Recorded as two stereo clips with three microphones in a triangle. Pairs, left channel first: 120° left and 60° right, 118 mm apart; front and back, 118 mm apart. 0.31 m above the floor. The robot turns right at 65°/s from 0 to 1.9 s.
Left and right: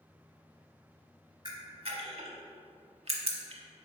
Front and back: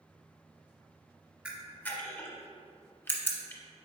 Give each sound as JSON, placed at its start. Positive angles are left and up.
{"t": 1.4, "sound": "a camera shutter", "azimuth_deg": -100, "distance_m": 0.7}